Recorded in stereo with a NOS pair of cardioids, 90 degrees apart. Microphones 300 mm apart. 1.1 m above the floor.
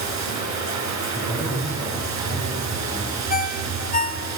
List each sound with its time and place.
0.0 s running water: 65° right, 6 m
1.1 s a man speaking: 5° right, 6 m
3.3 s a ringtone: 25° left, 2 m